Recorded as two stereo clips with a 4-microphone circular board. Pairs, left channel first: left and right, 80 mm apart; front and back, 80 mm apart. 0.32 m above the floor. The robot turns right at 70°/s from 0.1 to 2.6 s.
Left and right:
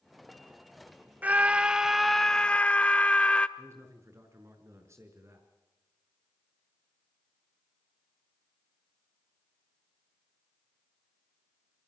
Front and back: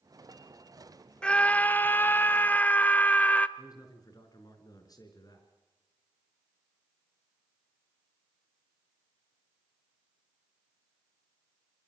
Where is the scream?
60° right, 1.0 m; by 3.5 s 35° left, 1.0 m.